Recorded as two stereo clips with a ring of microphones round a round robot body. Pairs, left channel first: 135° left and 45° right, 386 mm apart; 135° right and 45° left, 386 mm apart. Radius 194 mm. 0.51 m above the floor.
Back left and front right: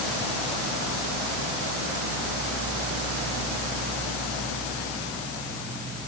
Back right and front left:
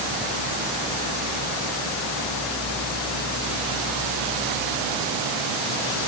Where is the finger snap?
I don't hear a finger snap.